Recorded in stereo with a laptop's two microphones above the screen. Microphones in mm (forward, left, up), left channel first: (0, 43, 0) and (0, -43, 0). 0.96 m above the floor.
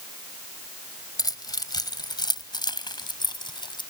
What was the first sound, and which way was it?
Keys jangling, 50° left (ahead or behind).